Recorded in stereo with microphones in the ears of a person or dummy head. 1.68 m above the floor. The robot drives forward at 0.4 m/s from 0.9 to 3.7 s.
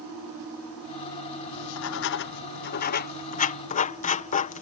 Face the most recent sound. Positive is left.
turn(degrees=40)  # may be behind; listen again after turning